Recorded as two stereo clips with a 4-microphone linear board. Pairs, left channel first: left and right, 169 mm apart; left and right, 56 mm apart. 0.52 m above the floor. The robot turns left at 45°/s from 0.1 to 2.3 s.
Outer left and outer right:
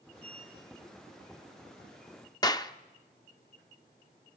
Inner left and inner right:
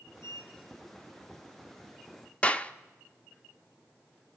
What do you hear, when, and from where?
0.2 s a sliding door: 40° left (ahead or behind), 5.5 m; by 1.6 s 75° left (ahead or behind), 5.5 m
2.4 s a clap: 25° left (ahead or behind), 0.5 m